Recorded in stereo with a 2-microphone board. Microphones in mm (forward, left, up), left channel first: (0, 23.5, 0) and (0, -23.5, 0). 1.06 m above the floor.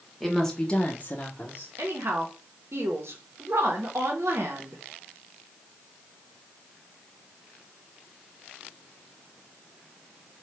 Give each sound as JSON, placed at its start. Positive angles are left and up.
{"t": 0.2, "sound": "a woman speaking", "side_deg": 0, "distance_m": 0.9}
{"t": 1.8, "sound": "a woman speaking", "side_deg": -70, "distance_m": 0.7}